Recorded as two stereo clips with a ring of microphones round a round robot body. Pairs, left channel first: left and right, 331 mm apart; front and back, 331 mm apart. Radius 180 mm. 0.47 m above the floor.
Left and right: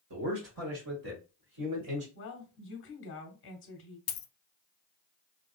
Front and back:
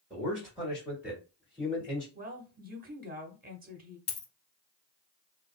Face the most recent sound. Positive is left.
turn(degrees=45)